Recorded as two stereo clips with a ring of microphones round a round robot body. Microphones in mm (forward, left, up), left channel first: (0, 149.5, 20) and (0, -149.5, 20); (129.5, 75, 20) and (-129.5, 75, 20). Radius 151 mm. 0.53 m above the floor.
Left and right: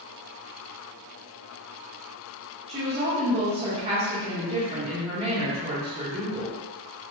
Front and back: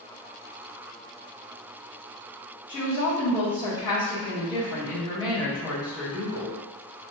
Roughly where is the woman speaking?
Ahead right.